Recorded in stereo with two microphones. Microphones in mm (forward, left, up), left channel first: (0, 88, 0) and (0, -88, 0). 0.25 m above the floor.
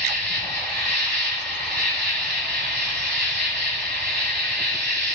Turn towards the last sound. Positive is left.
turn(degrees=-70)  # may be behind; listen again after turning